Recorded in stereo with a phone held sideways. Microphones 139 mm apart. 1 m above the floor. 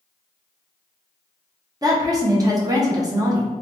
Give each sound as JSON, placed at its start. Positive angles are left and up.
{"t": 1.8, "sound": "a woman speaking", "side_deg": -25, "distance_m": 0.7}